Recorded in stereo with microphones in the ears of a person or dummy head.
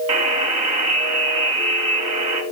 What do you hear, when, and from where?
0.1 s a buzzer: 30° right (ahead or behind), 4 m